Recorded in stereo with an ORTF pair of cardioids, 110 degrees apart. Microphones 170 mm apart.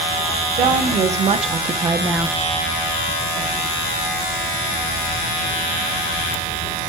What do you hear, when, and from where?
0.6 s a woman speaking: 50° right, 1.8 m; by 2.4 s 5° left, 0.7 m